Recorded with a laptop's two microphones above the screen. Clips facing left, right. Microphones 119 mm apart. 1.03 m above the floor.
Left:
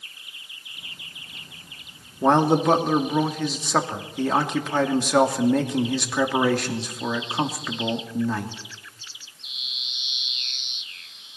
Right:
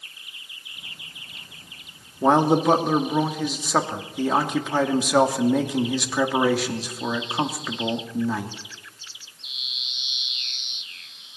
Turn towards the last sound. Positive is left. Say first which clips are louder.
# even
turn(degrees=-5)  # may be behind; listen again after turning